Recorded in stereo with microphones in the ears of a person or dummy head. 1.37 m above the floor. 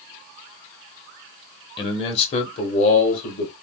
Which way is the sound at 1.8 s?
30° left (ahead or behind).